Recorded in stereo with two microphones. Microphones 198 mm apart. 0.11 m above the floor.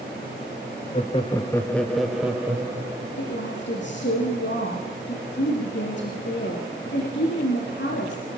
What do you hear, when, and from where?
0.9 s laughter: 35° left (ahead or behind), 1.7 m; by 3.2 s 15° right (ahead or behind), 4 m
3.2 s a woman speaking: 70° left (ahead or behind), 6 m